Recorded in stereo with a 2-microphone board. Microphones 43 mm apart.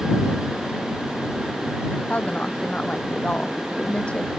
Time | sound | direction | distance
2.1 | a woman speaking | 30° left (ahead or behind) | ?